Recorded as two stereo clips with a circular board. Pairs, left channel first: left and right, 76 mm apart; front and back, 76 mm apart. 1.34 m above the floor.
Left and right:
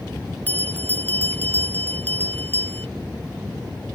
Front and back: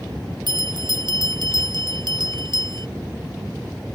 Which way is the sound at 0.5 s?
155° left.